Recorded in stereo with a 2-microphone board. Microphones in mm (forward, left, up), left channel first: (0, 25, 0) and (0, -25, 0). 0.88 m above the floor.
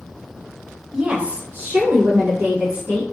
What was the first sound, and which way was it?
A woman speaking, 15° right (ahead or behind).